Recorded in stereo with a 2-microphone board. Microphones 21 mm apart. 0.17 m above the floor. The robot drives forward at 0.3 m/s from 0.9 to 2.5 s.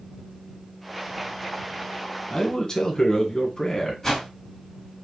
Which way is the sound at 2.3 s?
30° left (ahead or behind).